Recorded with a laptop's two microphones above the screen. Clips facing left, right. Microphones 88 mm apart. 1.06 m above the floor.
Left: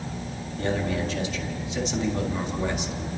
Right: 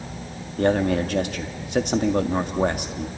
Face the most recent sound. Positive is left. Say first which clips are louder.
# right 7 dB
turn(degrees=-55)  # may be behind; listen again after turning